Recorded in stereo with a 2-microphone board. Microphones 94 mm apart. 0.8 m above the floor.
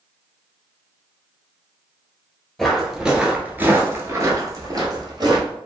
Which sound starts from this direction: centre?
Footsteps, at 2.6 s.